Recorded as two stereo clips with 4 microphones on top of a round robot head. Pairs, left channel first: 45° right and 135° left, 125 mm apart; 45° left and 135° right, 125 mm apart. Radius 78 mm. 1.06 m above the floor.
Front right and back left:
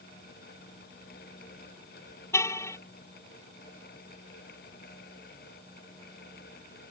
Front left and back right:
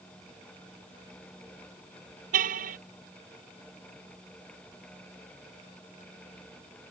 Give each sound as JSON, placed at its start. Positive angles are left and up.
{"t": 2.3, "sound": "a car horn", "azimuth_deg": -115}